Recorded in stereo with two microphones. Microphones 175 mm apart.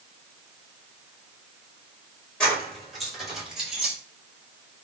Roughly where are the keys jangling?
Centre.